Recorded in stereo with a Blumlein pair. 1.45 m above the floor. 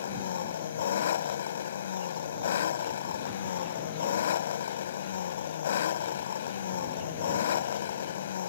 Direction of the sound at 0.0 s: 60° left.